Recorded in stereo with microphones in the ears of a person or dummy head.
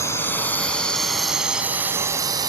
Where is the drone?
15° left (ahead or behind); by 2.5 s 20° right (ahead or behind).